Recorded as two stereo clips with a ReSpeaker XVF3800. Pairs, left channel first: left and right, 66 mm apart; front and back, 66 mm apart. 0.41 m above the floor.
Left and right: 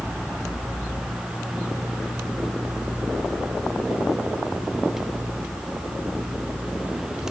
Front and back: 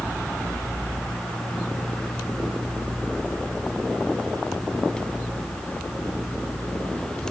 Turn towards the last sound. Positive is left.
No sound to turn to.